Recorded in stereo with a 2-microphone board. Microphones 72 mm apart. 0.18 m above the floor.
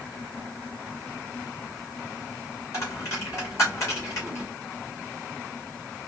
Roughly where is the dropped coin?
Left.